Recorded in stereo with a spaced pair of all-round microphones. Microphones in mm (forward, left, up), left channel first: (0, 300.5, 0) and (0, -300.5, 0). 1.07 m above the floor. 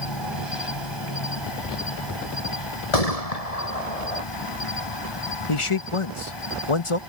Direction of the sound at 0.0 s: 45° left (ahead or behind).